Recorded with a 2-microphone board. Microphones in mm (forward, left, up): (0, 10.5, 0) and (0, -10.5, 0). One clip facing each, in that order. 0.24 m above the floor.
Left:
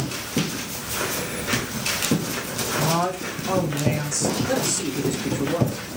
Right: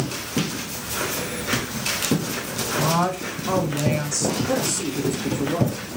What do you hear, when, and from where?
2.8 s a woman speaking: 10° right (ahead or behind), 1.2 m
4.5 s a man speaking: 20° left (ahead or behind), 3 m